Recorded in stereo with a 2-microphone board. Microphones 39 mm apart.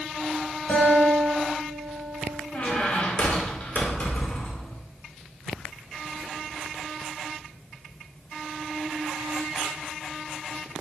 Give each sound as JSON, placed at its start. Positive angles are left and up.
{"t": 0.7, "sound": "a guitar", "side_deg": 60, "distance_m": 2.5}
{"t": 2.5, "sound": "a squeak", "side_deg": 35, "distance_m": 1.0}